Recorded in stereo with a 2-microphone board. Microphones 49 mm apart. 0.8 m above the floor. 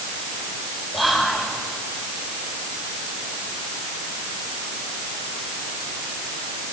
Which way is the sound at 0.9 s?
5° right (ahead or behind).